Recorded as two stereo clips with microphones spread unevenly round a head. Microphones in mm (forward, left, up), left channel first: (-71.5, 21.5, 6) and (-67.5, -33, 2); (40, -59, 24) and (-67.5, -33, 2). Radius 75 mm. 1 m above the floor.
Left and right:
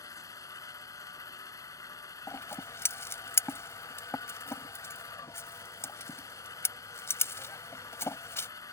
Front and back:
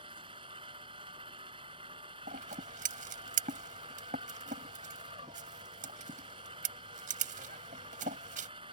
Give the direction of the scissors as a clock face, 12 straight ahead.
8 o'clock.